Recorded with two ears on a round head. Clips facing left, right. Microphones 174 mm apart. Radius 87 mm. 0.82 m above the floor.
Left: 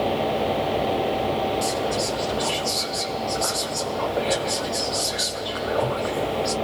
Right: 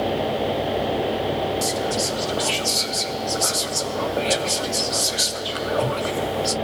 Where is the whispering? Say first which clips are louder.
Even; 35° right (ahead or behind), 0.8 m.